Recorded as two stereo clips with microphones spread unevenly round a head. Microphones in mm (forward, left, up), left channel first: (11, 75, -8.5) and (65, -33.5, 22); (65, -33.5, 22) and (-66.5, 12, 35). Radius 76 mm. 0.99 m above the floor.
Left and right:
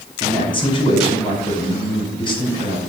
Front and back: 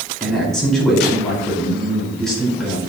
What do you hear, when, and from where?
0.2 s a man speaking: 65° left, 5 m